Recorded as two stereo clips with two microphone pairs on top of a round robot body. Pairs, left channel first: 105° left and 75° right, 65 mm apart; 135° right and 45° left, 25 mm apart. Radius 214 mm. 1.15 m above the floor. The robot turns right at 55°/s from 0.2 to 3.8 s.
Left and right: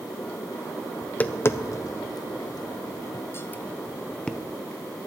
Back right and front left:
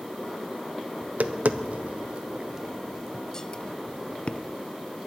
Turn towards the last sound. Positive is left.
turn(degrees=-175)